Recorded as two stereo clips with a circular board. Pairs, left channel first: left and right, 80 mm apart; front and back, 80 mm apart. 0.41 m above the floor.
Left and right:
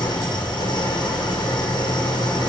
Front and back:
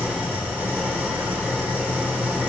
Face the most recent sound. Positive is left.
turn(degrees=115)